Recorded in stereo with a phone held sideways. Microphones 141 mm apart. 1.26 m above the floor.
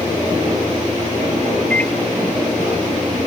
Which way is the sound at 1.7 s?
10° left (ahead or behind).